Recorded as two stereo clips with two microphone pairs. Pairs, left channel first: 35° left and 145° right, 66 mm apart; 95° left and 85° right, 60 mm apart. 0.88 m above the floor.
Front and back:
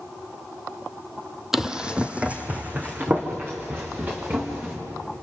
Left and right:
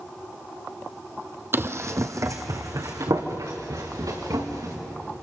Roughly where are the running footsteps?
Ahead right.